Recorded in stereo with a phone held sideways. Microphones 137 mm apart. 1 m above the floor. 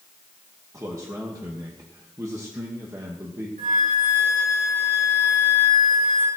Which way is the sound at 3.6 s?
85° right.